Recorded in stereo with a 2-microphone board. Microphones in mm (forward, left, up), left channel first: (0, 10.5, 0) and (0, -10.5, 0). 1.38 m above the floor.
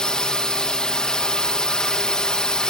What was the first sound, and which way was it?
A drone, 40° left (ahead or behind).